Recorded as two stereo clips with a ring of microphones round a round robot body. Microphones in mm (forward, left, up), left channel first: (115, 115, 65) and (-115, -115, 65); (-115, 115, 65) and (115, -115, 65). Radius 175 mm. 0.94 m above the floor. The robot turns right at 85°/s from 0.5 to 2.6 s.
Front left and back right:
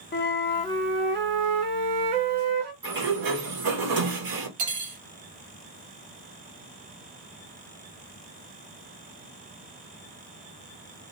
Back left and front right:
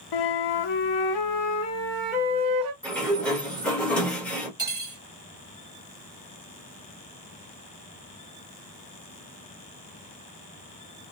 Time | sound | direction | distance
0.1 | a flute | 105° left | 0.5 m
2.8 | a sliding door | 140° right | 1.5 m
4.6 | cutlery clinking | 125° right | 1.3 m